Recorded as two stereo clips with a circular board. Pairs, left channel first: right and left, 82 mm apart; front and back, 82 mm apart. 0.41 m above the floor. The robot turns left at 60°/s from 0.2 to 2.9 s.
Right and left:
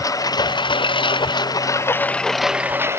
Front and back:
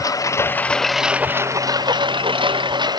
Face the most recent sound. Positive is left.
turn(degrees=150)